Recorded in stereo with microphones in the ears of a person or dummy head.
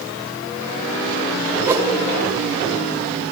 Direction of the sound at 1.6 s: 10° right (ahead or behind).